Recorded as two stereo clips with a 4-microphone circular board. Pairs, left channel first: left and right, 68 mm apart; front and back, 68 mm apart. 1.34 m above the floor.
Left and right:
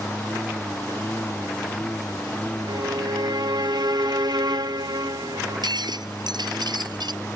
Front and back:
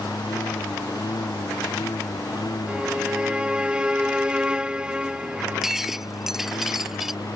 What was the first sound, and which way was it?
A lawn mower, 20° left.